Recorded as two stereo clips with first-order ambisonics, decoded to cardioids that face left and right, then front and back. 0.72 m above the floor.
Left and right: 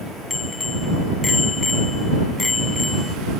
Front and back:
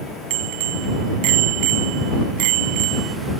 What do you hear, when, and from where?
0.3 s a bicycle bell: 170° left